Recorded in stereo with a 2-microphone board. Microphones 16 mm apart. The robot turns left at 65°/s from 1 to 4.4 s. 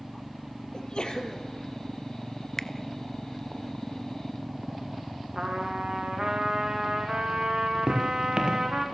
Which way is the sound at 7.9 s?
60° right (ahead or behind).